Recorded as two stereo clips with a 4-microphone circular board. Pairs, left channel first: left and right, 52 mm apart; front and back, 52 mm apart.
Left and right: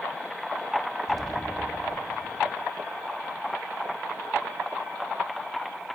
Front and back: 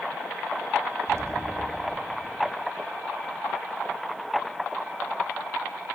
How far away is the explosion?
About 0.7 m.